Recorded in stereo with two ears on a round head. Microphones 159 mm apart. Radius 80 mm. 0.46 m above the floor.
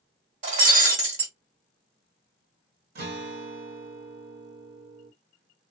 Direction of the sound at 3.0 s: 60° right (ahead or behind).